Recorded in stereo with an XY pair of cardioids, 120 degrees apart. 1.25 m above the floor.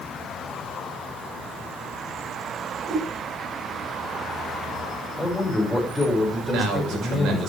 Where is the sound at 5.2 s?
5° left, 5.5 m.